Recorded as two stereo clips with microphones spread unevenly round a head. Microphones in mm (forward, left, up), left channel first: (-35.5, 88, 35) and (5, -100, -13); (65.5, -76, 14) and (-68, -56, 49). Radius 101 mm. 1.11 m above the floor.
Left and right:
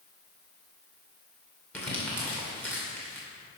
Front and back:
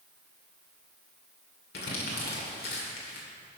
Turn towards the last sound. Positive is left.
turn(degrees=20)